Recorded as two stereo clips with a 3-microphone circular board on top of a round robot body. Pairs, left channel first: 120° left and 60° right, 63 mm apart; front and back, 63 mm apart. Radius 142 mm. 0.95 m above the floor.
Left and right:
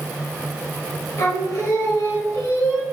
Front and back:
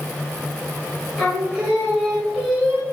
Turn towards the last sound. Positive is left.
turn(degrees=95)